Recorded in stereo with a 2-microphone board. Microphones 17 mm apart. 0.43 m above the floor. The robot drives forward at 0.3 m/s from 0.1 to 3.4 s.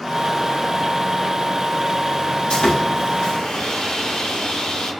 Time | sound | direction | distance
2.5 | sawing | 65° left (ahead or behind) | 2.5 m